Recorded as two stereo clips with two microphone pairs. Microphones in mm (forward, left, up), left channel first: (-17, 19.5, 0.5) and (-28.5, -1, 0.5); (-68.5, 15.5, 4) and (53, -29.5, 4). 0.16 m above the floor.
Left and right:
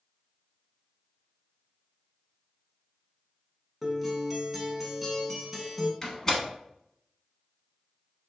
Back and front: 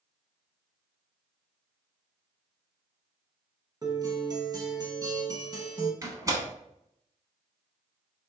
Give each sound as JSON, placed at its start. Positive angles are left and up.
{"t": 3.8, "sound": "a guitar", "azimuth_deg": -40, "distance_m": 0.7}
{"t": 6.0, "sound": "a door slam", "azimuth_deg": 10, "distance_m": 0.9}